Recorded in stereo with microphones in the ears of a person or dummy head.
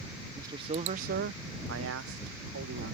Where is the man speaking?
20° right (ahead or behind); by 2.9 s 60° right (ahead or behind).